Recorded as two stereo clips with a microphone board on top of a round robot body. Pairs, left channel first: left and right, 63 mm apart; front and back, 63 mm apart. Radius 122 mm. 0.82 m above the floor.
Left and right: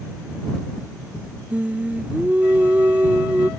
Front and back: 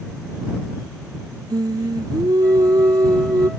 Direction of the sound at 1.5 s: 160° right.